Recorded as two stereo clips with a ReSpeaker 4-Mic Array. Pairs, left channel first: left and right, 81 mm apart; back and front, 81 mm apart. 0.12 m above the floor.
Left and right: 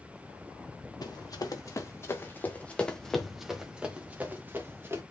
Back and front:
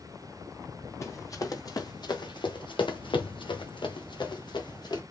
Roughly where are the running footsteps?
Behind left.